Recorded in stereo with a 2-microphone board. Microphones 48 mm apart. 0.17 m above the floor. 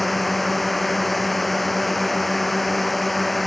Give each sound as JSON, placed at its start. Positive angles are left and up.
{"t": 0.0, "sound": "a drone", "side_deg": 5}